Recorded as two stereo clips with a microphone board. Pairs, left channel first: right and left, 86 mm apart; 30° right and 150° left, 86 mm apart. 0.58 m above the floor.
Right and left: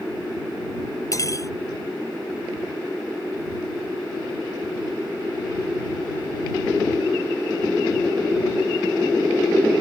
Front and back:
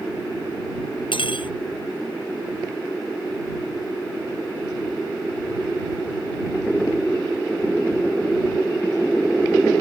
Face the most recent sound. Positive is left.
turn(degrees=-40)